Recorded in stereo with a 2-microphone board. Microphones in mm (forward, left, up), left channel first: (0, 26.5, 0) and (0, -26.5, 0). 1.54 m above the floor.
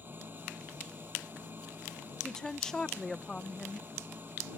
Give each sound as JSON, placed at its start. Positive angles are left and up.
{"t": 0.0, "sound": "an engine running", "side_deg": -35}
{"t": 2.2, "sound": "a woman speaking", "side_deg": 10}